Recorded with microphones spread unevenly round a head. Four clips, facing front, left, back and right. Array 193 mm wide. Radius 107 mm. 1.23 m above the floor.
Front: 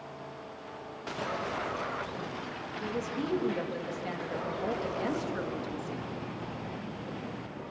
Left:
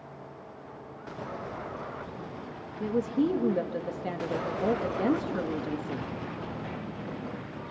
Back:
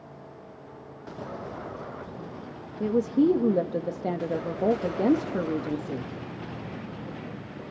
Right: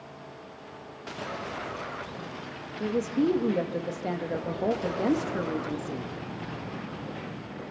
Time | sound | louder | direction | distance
2.8 | a woman speaking | right 1 dB, back 13 dB | 175° right | 1.6 m